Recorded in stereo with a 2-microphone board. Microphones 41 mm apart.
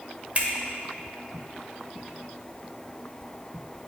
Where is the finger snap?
35° right (ahead or behind), 0.9 m.